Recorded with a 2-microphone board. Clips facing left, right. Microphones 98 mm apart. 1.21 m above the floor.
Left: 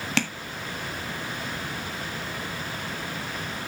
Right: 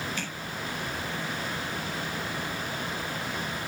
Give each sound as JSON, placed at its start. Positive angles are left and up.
{"t": 0.2, "sound": "tapping", "side_deg": 85, "distance_m": 1.6}